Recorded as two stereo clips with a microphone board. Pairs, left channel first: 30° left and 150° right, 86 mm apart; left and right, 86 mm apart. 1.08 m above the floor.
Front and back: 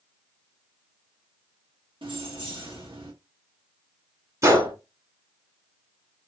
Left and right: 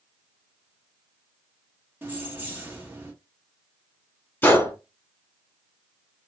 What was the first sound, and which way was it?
Keys jangling, 155° right.